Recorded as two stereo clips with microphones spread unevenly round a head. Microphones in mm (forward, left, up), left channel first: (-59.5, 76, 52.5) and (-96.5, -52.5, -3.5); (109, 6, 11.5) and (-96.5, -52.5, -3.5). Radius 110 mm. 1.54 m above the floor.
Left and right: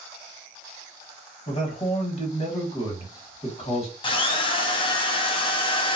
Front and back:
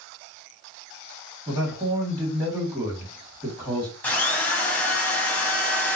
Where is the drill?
95° left, 0.6 m.